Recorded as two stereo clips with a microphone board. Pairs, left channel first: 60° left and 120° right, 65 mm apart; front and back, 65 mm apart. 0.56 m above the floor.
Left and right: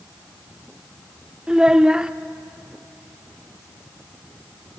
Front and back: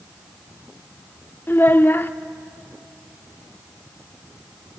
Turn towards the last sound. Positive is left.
turn(degrees=-45)